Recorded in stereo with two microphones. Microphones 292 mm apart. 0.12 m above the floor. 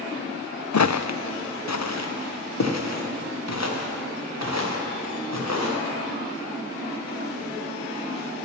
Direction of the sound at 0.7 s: 70° left (ahead or behind).